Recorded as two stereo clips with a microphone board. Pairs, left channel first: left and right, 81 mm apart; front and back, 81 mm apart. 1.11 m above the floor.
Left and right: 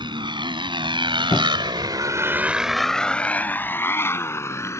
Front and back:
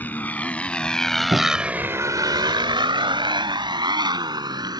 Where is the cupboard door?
150° left.